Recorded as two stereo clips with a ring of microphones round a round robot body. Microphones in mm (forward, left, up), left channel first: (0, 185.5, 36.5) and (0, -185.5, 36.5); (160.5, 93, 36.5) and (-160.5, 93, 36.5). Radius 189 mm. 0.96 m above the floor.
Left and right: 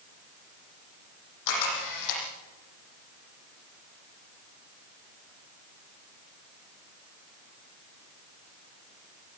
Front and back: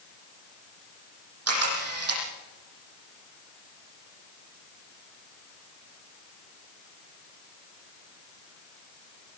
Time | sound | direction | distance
1.5 | a camera shutter | 135° left | 9 m